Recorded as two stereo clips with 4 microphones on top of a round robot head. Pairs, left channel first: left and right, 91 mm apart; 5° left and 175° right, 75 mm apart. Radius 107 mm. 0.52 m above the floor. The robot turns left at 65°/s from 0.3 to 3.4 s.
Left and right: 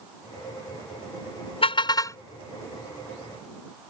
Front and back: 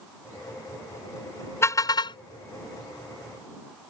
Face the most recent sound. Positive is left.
turn(degrees=-50)